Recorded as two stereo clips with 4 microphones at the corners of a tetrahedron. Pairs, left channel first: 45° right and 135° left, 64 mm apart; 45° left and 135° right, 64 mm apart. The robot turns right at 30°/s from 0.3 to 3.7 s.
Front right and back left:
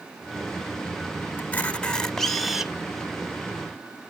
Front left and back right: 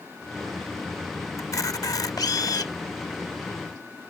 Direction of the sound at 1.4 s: 15° left.